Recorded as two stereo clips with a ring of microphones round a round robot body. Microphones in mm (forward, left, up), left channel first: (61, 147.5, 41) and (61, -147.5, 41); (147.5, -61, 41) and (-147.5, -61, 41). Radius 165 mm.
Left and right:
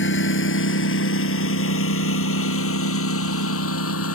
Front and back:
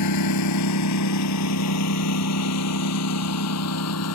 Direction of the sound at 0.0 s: 40° left.